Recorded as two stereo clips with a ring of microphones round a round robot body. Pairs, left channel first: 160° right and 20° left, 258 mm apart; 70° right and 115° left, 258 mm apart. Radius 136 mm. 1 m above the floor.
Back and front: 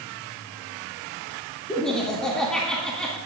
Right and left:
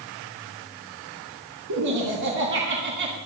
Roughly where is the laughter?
Behind left.